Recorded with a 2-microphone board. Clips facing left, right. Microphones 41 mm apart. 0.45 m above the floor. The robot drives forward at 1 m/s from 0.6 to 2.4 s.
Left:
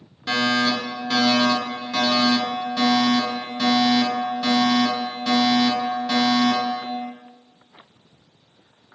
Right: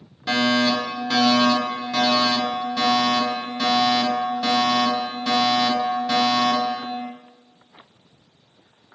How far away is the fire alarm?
About 1.7 m.